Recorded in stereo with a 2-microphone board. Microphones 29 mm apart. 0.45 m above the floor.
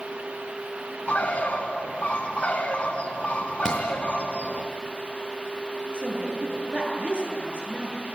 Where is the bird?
50° left (ahead or behind), 2.5 m.